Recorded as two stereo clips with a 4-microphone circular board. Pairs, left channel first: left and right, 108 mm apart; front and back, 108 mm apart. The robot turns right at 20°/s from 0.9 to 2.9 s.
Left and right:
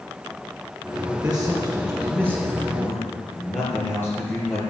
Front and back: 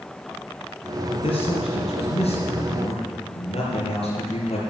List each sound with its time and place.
1.1 s a man speaking: 15° right, 4.5 m; by 4.6 s 20° left, 4.5 m